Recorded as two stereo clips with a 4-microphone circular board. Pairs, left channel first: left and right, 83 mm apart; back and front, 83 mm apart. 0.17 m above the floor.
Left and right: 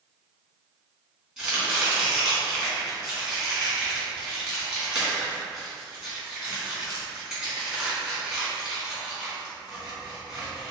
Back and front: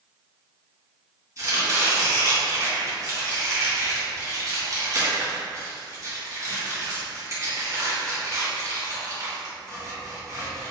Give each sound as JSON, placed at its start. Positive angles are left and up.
{"t": 1.4, "sound": "chopping", "azimuth_deg": -5, "distance_m": 1.8}